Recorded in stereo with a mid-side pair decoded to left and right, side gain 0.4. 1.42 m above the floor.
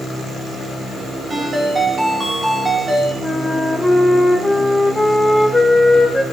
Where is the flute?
5° left, 1.9 m.